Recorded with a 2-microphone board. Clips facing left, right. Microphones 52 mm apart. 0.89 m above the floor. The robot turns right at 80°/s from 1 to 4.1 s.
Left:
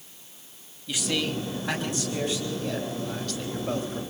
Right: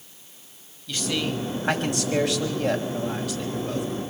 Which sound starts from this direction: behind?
A man speaking, at 0.9 s.